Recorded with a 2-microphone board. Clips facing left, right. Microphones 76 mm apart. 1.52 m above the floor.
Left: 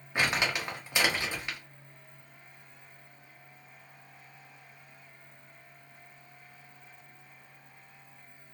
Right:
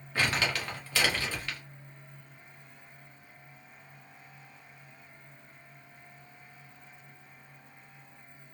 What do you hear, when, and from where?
0.1 s crumpling: 15° left (ahead or behind), 0.8 m